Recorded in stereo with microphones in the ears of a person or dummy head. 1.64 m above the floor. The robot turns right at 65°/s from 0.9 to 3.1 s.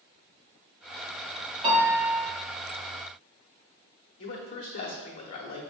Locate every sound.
1.6 s a piano: 40° right, 1.6 m; by 2.3 s 5° left, 1.6 m
4.2 s a man speaking: 50° left (ahead or behind), 1.3 m